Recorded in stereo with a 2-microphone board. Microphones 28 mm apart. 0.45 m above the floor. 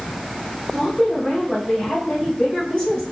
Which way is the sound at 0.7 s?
45° left (ahead or behind).